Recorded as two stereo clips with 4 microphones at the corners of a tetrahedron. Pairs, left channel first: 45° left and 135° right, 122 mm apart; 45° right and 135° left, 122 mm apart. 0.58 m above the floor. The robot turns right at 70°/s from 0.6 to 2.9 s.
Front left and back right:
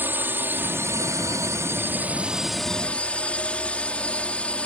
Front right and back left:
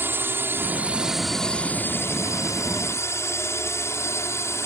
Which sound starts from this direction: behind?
A drone, at 0.0 s.